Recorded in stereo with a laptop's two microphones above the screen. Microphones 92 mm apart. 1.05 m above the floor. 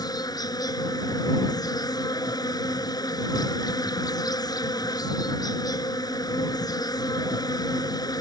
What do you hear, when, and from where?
0.0 s an insect: 45° left (ahead or behind)